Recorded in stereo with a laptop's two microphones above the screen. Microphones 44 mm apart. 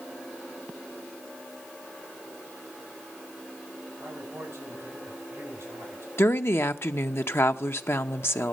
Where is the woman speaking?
60° left (ahead or behind), 0.8 m.